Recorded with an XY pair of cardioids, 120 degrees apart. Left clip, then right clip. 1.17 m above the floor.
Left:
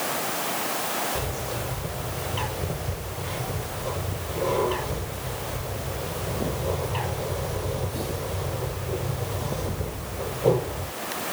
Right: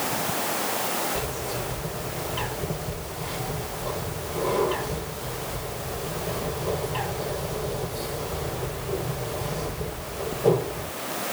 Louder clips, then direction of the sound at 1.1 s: Even; 10° left.